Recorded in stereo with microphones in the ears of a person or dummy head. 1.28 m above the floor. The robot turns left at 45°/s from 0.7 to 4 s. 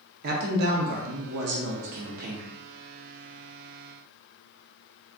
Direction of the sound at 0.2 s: 60° right.